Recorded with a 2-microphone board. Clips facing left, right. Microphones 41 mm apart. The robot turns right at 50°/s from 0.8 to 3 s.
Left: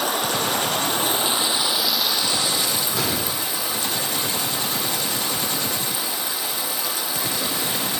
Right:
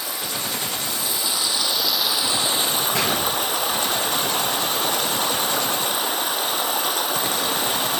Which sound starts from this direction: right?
A gunshot, at 2.9 s.